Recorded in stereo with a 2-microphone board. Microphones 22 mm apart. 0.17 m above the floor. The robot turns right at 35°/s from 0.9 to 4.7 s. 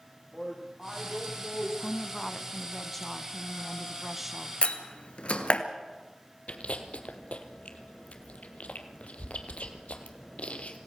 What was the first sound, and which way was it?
A woman speaking, centre (ahead or behind).